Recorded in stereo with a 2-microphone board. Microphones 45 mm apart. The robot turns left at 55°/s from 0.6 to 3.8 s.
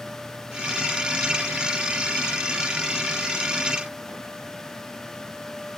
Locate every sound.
Only background noise.